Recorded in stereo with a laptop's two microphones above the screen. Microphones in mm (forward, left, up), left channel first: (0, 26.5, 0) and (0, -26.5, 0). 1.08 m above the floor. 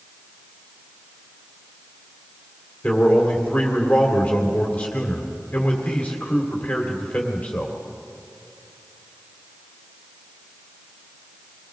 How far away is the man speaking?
About 2.5 m.